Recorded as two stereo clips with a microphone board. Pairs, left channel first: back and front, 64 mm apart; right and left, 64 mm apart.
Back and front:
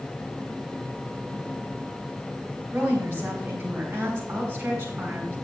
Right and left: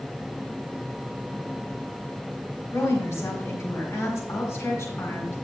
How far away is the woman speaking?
About 3.5 m.